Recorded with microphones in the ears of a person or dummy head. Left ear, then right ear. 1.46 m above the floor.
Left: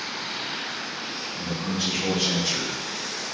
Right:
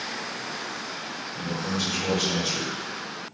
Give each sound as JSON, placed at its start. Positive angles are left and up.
{"t": 1.3, "sound": "a man speaking", "side_deg": -45, "distance_m": 1.3}